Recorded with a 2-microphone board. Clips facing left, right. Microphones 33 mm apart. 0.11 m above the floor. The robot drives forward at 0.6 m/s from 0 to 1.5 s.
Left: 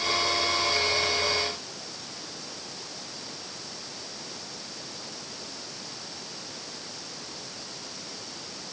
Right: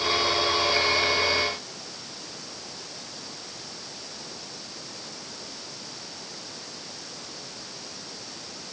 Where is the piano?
I don't hear a piano.